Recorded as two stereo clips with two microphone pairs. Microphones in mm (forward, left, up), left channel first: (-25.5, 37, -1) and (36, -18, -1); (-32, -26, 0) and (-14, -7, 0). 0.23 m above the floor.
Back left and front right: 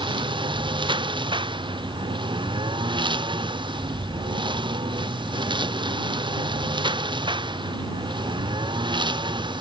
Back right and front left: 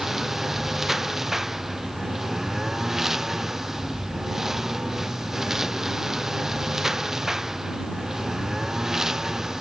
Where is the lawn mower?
30° right; by 9.6 s 20° right.